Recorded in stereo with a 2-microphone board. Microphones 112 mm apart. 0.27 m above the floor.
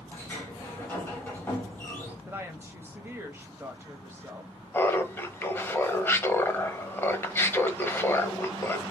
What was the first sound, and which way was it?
A sliding door, 15° left (ahead or behind).